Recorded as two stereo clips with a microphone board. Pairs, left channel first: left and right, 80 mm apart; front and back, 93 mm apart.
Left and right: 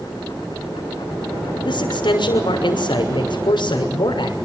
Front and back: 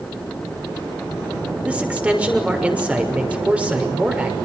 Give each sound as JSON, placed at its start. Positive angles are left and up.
{"t": 1.6, "sound": "a man speaking", "azimuth_deg": 105, "distance_m": 6.0}